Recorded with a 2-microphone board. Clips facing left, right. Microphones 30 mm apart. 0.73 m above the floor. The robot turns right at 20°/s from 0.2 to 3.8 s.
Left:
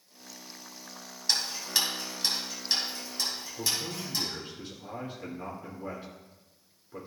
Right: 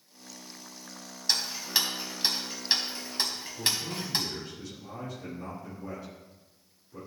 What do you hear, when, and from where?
1.3 s ticking: centre (ahead or behind), 2.0 m; by 4.3 s 50° right (ahead or behind), 2.0 m
3.6 s a man speaking: 35° left (ahead or behind), 2 m; by 7.1 s 40° left (ahead or behind), 2 m